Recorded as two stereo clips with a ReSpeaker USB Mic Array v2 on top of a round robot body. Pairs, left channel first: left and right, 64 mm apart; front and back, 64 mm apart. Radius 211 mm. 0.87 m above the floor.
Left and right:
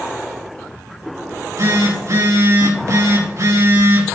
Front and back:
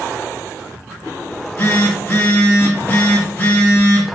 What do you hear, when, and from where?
1.3 s a phone buzzing: 60° right, 5 m